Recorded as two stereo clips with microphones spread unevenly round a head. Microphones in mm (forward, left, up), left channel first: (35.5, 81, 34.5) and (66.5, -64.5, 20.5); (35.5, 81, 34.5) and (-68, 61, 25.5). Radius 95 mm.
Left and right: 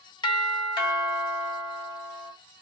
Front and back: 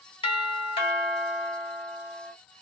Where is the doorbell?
45° left, 1.3 m.